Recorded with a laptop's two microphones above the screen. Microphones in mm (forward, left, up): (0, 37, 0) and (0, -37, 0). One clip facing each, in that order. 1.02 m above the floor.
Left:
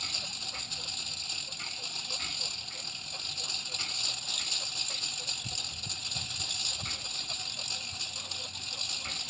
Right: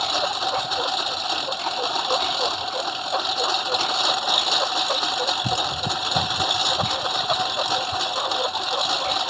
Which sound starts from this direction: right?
A lawn mower, at 0.0 s.